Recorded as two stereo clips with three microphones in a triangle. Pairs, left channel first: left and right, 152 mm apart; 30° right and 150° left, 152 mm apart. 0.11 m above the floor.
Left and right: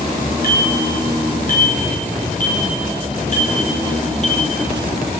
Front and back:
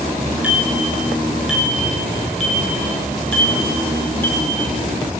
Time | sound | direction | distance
0.4 | a bicycle bell | 70° left | 7.5 m